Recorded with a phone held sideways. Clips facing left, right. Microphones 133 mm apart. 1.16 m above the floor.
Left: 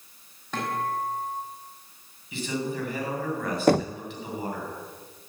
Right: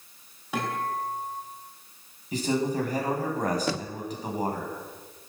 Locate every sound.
0.5 s a guitar: 10° right (ahead or behind), 6.5 m
2.3 s a man speaking: 40° right (ahead or behind), 8 m
3.7 s knocking: 55° left (ahead or behind), 0.5 m